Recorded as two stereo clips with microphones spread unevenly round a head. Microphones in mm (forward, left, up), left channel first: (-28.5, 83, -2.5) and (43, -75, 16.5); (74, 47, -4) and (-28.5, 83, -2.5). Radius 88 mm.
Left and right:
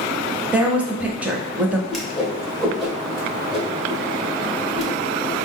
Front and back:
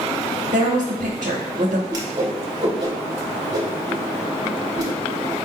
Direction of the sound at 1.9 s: 150° right.